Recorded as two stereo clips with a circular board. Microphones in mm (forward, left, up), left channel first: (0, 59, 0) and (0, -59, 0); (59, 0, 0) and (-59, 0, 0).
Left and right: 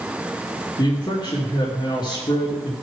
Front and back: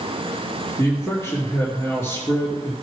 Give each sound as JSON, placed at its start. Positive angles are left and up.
{"t": 0.8, "sound": "a man speaking", "azimuth_deg": 60, "distance_m": 2.5}